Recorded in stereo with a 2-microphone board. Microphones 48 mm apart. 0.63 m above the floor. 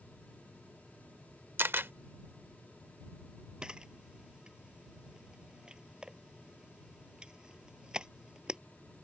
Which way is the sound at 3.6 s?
20° right (ahead or behind).